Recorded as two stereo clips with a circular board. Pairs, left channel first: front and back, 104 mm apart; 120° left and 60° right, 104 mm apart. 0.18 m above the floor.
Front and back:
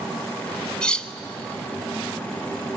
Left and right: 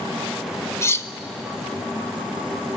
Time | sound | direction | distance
0.8 | cutlery clinking | 75° left | 0.7 m